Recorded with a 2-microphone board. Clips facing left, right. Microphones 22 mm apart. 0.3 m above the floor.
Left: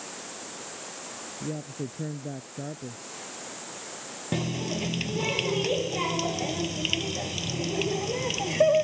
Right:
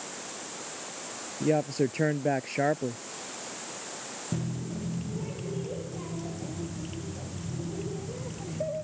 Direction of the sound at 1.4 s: 75° right (ahead or behind).